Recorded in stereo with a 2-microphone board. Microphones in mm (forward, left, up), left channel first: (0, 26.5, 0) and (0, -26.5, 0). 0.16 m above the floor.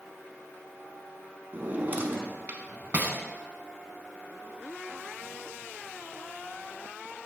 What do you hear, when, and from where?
1.5 s a drawer: 35° right (ahead or behind), 0.7 m